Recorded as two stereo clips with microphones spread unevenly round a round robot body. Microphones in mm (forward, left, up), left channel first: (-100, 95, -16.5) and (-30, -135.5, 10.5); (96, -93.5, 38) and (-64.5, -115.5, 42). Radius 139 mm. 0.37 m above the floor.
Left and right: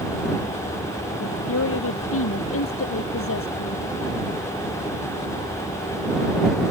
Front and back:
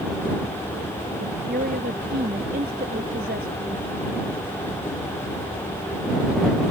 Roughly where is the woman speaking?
Behind left.